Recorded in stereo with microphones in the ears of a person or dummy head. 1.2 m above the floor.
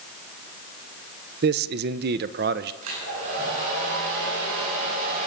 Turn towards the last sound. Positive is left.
turn(degrees=-70)  # may be behind; listen again after turning